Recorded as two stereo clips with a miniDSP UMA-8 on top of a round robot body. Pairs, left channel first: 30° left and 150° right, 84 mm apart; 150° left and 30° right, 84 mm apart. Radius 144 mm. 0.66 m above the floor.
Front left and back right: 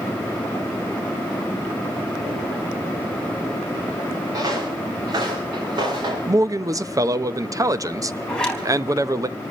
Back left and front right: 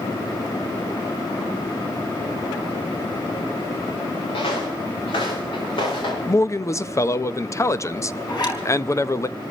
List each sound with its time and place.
4.3 s footsteps: 165° left, 6 m; by 6.2 s 175° left, 5.5 m
6.3 s a man speaking: 175° right, 0.8 m
8.3 s a zipper: 110° left, 4 m